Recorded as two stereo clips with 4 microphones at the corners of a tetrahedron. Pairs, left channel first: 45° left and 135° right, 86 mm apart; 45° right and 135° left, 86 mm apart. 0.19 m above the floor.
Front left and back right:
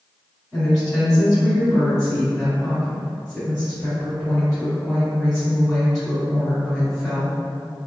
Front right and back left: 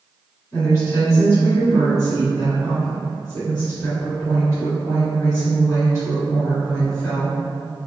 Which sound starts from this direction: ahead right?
A woman speaking, at 0.5 s.